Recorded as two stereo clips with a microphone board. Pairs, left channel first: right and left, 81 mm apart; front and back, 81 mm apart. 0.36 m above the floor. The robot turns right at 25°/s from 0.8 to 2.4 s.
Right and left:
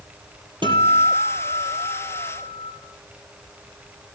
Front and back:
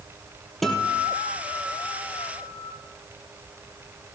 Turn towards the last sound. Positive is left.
turn(degrees=130)